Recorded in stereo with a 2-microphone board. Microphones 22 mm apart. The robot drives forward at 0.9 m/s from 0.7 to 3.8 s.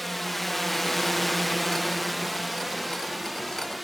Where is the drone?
5° left (ahead or behind); by 3.9 s 5° right (ahead or behind).